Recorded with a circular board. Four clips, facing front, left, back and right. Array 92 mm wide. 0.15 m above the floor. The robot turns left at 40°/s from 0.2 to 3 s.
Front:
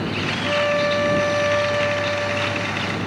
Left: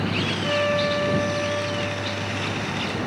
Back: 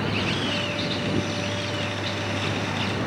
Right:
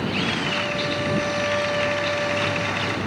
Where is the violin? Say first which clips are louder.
Left 4 dB, front 9 dB; 35° left; by 3.0 s 65° right.